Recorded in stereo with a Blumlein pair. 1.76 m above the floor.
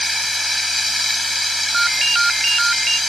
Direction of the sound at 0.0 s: 5° left.